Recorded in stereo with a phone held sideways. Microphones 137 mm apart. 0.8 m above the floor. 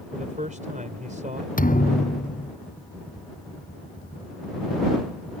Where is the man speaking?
70° right (ahead or behind).